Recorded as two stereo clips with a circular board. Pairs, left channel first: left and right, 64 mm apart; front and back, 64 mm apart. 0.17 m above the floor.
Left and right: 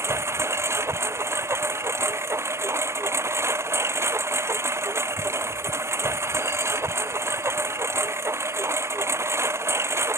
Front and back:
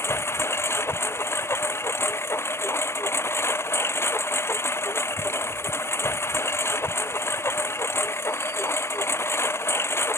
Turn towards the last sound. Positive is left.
turn(degrees=-45)